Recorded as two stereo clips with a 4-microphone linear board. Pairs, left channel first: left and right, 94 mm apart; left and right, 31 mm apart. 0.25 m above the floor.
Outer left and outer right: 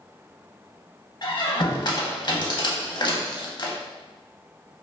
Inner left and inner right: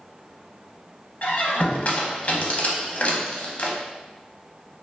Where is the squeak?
50° left (ahead or behind), 0.5 m.